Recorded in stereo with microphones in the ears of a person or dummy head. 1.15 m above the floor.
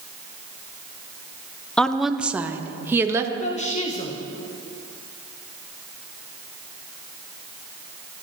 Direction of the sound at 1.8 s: 5° left (ahead or behind).